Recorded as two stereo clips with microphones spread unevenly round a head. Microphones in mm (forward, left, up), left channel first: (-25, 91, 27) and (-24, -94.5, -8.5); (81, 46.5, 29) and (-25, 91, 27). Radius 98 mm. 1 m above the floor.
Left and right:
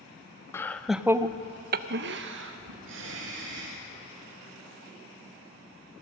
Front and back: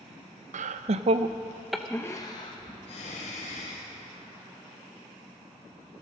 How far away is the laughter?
About 0.7 m.